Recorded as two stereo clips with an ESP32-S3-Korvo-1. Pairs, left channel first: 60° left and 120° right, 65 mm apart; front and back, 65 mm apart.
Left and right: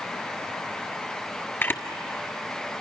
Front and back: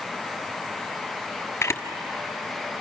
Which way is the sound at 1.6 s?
20° left.